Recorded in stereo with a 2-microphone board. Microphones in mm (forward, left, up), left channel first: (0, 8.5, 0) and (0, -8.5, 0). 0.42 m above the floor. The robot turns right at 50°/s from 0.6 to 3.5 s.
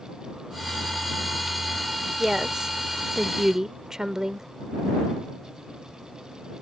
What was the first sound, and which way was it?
A woman speaking, 135° right.